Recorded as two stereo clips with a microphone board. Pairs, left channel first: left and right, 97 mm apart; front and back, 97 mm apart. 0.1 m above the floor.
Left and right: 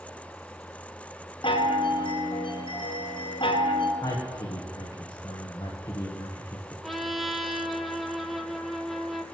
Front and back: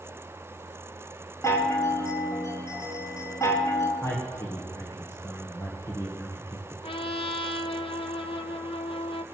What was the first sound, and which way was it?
A chime, 60° left.